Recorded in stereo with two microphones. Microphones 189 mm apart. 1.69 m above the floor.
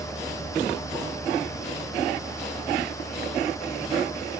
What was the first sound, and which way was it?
A vehicle, 50° right (ahead or behind).